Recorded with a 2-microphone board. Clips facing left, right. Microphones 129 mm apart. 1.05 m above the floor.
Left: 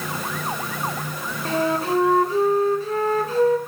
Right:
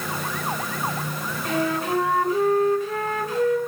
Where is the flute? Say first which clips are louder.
Left 2 dB; 30° left (ahead or behind), 3.5 m.